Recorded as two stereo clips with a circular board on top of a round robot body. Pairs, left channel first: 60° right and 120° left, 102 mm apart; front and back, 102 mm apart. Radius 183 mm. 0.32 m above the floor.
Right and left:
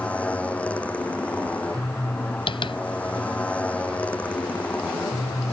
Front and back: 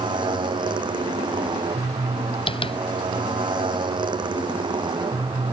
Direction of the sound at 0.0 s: 135° right.